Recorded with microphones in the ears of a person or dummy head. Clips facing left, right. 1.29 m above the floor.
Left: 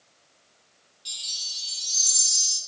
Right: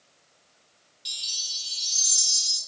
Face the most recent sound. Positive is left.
turn(degrees=-25)  # may be behind; listen again after turning